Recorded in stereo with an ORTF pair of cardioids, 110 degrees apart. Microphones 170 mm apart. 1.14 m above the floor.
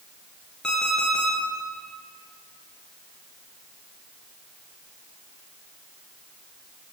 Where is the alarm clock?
5° left, 9.5 m.